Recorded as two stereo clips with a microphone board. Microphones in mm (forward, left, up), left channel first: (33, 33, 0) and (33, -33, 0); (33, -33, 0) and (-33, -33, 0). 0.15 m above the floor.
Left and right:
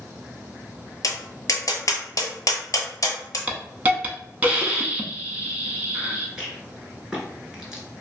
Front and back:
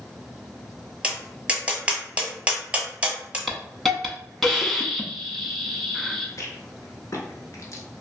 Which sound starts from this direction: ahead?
A rattle, at 6.4 s.